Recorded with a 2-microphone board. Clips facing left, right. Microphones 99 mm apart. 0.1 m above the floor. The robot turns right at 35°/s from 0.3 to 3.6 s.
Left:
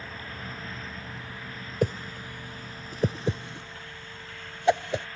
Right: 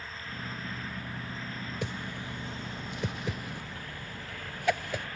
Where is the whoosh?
45° left (ahead or behind); by 5.1 s 25° left (ahead or behind).